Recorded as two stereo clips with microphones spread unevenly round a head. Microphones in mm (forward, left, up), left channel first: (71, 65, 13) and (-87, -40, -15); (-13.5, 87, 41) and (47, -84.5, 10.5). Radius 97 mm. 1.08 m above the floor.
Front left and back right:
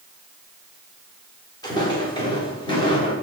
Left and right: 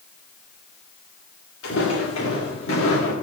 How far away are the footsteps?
About 8 m.